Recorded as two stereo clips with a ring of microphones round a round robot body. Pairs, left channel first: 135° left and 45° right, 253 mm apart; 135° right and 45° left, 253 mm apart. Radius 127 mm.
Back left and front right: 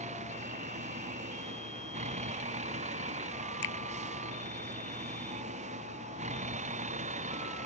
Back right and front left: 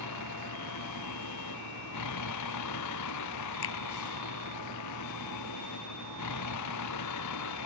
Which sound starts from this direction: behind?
A finger snap, at 3.6 s.